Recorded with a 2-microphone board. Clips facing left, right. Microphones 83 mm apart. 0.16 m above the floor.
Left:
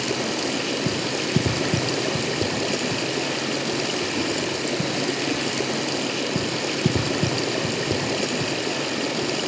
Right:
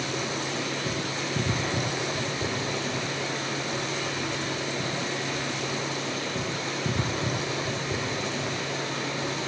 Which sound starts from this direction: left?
Running water, at 0.0 s.